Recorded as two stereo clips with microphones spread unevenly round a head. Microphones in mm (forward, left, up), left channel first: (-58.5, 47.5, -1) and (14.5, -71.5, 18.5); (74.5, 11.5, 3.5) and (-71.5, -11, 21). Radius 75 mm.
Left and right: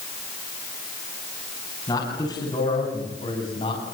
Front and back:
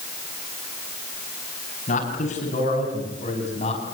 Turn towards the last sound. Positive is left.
turn(degrees=60)